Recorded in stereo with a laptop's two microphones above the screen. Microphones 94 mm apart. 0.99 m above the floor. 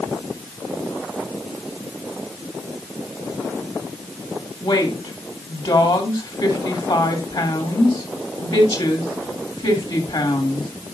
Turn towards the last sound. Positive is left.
turn(degrees=65)  # may be behind; listen again after turning